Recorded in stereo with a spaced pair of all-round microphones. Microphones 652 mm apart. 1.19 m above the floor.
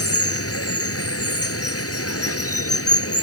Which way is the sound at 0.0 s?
20° left (ahead or behind).